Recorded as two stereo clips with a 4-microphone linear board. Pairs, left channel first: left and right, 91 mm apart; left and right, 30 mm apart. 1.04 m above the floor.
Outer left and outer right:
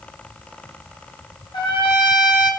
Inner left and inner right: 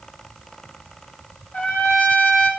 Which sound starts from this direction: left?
A trumpet, at 1.5 s.